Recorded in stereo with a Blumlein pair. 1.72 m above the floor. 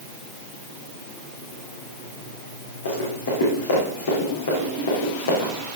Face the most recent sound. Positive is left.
turn(degrees=65)